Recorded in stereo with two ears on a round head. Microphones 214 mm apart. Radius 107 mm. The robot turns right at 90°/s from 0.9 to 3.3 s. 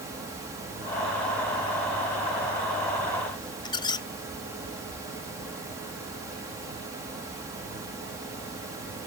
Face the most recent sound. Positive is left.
turn(degrees=20)  # may be behind; listen again after turning